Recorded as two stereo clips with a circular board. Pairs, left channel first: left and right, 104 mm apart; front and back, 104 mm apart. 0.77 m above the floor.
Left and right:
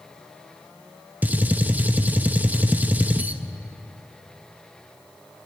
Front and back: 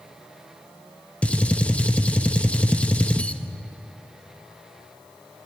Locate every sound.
1.2 s a gunshot: 55° right, 1.0 m